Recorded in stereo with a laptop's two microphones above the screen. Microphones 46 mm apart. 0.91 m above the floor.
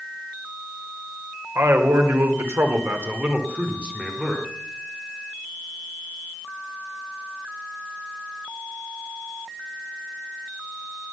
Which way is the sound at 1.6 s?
80° right.